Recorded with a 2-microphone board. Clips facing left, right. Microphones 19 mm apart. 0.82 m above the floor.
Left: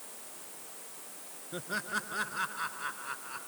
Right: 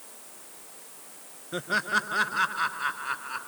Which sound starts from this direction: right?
Laughter, at 1.5 s.